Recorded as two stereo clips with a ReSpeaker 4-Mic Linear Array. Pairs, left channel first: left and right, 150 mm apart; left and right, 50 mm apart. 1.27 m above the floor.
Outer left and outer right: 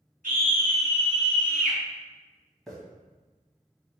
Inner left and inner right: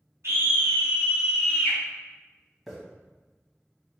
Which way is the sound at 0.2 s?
55° right (ahead or behind).